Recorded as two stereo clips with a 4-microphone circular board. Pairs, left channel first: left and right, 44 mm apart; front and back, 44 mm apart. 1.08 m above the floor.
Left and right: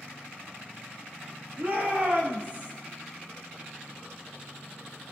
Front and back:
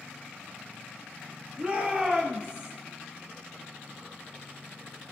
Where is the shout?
125° right, 2.5 m.